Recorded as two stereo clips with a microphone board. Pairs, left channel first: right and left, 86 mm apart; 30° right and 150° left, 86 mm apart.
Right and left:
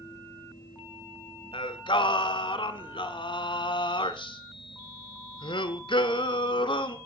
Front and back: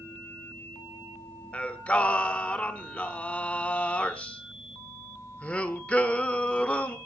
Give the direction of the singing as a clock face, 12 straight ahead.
3 o'clock.